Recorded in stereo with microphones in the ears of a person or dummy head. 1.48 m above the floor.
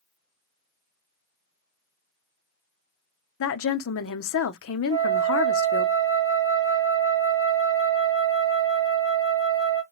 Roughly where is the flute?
Centre.